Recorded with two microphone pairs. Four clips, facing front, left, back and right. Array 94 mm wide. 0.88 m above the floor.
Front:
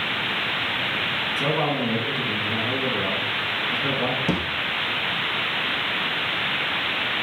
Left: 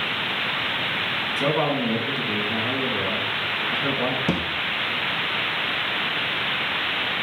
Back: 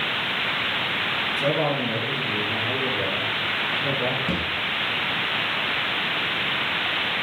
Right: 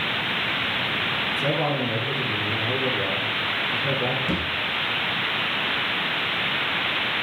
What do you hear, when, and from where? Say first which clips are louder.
1.4 s a man speaking: left 3 dB, even; 65° left, 7 m
4.3 s a thud: left 2 dB, front 2 dB; 55° left, 3.5 m